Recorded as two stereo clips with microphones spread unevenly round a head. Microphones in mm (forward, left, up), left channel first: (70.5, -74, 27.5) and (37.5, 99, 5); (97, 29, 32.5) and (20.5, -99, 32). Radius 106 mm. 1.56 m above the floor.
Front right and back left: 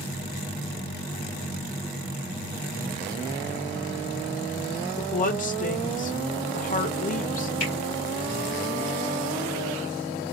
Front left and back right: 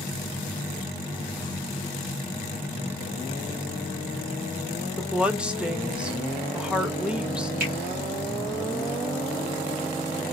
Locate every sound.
5.0 s a woman speaking: 40° right, 1.0 m
7.6 s a finger snap: 130° right, 3.5 m